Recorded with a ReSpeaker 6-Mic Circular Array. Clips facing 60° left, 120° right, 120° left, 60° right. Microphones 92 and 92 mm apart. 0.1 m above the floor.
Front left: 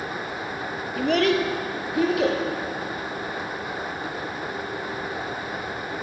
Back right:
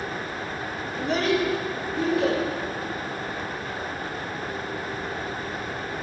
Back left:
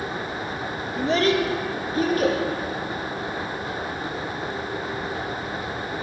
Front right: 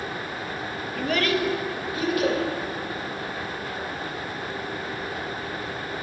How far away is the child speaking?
About 1.1 m.